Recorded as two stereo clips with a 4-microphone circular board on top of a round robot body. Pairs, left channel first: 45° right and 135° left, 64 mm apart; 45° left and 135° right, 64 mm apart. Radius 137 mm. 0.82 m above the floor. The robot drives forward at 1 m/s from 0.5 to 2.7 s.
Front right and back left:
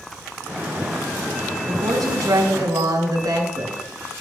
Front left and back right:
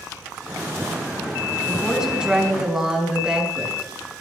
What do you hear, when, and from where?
1.7 s a woman speaking: 145° left, 5 m; by 4.2 s 150° left, 6 m